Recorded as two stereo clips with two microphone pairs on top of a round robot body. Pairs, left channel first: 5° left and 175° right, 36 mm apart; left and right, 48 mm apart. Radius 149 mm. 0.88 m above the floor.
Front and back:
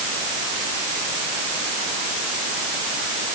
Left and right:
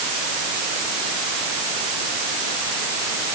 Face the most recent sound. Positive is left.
No sound to turn to.